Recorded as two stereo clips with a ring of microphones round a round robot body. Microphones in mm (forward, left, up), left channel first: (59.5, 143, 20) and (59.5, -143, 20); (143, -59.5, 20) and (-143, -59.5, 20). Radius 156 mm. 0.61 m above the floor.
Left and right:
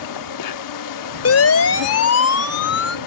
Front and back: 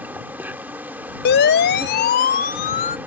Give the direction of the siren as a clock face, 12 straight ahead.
10 o'clock.